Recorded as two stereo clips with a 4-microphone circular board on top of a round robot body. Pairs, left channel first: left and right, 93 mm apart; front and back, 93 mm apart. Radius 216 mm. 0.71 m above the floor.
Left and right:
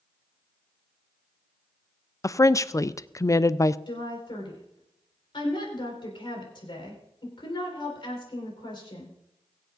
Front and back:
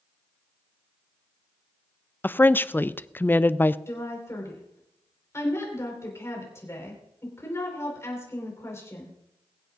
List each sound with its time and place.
2.2 s a woman speaking: 55° left, 0.6 m
3.9 s a woman speaking: 60° left, 4 m